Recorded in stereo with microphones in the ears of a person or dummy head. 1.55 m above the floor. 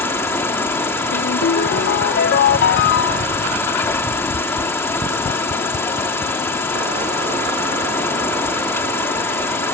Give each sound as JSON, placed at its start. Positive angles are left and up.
{"t": 0.0, "sound": "an insect", "side_deg": 15}
{"t": 1.1, "sound": "a ringtone", "side_deg": 60}